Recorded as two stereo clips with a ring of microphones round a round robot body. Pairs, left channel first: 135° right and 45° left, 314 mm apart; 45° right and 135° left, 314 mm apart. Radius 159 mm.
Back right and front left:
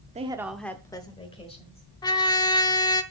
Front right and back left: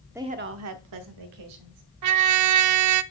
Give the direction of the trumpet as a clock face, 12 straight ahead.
7 o'clock.